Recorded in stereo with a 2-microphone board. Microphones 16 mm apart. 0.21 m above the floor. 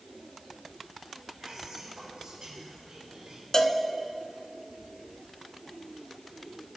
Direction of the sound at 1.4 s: 65° right (ahead or behind).